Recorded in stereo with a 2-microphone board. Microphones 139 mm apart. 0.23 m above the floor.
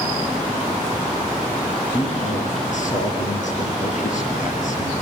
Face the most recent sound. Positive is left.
turn(degrees=65)  # may be behind; listen again after turning